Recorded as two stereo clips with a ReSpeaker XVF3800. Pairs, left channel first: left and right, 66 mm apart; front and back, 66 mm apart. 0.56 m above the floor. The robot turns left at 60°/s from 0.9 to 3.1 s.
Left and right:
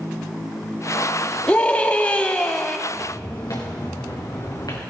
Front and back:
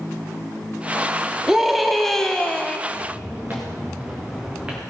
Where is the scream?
115° left, 1.0 m; by 2.8 s 35° left, 1.0 m.